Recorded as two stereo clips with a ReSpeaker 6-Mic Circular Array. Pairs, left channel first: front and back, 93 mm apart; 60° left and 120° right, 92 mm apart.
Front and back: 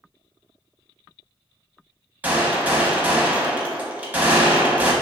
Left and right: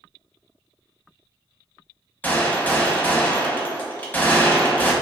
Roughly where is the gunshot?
Behind left.